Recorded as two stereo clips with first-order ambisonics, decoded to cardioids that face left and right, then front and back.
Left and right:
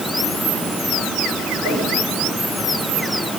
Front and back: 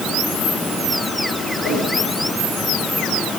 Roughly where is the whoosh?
Ahead.